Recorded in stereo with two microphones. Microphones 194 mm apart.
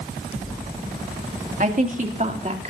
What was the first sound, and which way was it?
A woman speaking, 45° right (ahead or behind).